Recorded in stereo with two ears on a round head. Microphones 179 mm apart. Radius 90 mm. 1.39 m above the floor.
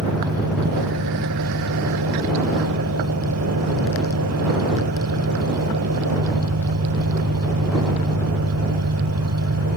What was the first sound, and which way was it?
An engine running, 85° right.